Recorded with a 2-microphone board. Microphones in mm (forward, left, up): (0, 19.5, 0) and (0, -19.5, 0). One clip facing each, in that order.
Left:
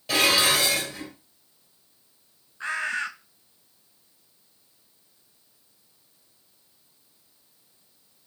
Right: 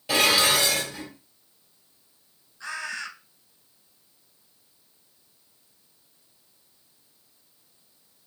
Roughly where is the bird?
Left.